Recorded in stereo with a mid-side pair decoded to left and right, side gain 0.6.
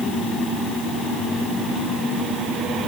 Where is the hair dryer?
No hair dryer in this recording.